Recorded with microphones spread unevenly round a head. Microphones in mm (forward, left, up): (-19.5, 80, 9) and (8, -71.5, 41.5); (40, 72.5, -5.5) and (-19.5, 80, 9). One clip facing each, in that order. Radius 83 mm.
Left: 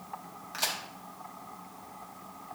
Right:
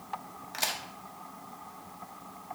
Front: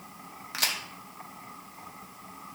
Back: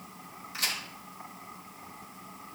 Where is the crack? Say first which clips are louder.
Right 1 dB, front 3 dB; straight ahead, 1.4 m.